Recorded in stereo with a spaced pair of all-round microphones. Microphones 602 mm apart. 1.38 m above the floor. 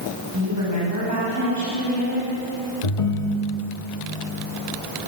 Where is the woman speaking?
30° right (ahead or behind), 7.5 m.